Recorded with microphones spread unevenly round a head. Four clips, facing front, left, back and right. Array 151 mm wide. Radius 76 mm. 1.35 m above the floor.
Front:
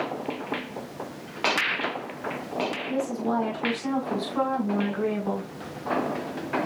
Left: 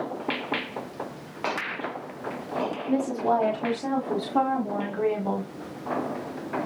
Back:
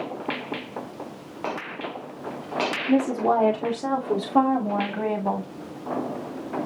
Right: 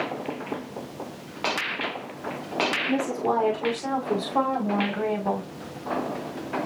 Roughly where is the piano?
I don't hear a piano.